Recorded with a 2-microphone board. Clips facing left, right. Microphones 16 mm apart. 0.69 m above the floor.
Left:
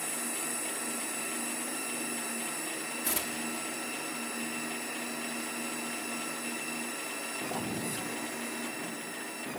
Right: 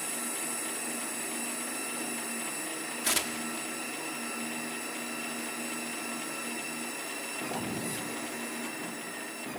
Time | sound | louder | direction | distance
3.0 | tearing paper | right 5 dB | 35° right (ahead or behind) | 0.9 m